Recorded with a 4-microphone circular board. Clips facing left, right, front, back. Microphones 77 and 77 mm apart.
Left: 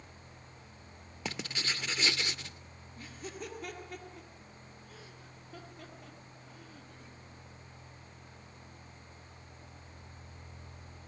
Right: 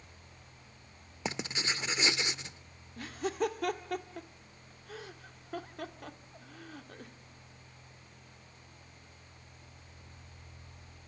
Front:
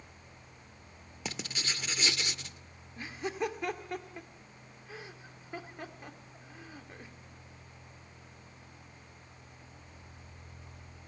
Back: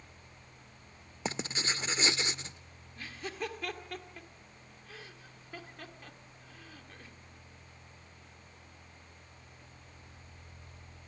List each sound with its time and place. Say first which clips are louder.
1.2 s writing: right 2 dB, back 4 dB; 145° right, 0.5 m
3.0 s laughter: right 11 dB, front 5 dB; 70° right, 1.8 m